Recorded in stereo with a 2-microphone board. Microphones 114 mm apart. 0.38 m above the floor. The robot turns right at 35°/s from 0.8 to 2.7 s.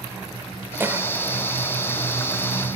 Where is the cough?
20° right (ahead or behind), 1.2 m; by 1.1 s 25° right (ahead or behind), 1.2 m.